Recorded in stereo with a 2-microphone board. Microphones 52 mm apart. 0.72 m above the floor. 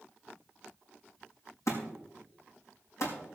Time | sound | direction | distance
1.7 | a thud | 65° left (ahead or behind) | 5 m